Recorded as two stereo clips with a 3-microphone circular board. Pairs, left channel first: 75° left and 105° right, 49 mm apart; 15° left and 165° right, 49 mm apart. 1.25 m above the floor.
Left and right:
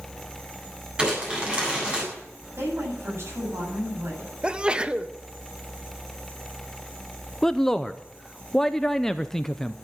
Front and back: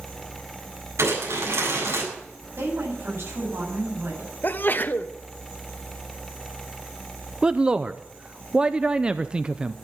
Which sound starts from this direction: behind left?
A man speaking, at 7.4 s.